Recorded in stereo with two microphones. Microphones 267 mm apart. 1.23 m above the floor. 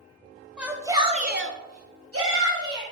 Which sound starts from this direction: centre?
A shout, at 0.6 s.